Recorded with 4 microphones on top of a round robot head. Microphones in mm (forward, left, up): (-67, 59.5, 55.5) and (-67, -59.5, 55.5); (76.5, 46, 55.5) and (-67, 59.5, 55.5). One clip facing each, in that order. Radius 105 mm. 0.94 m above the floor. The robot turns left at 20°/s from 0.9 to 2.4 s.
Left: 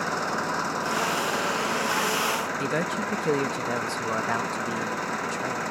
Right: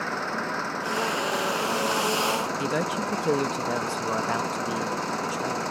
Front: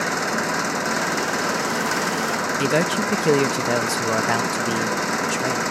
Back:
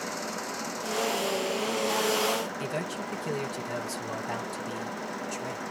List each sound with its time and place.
0.0 s an engine running: 10° left; by 5.7 s 20° right
2.6 s a man speaking: 5° right